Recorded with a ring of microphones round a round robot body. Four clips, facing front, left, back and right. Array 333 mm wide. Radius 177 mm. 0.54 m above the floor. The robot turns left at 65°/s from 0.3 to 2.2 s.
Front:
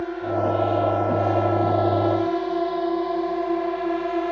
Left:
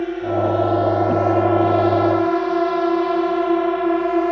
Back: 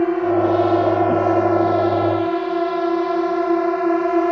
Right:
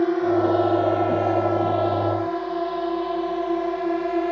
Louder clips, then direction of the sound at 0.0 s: Right 1 dB, back 7 dB; 160° right.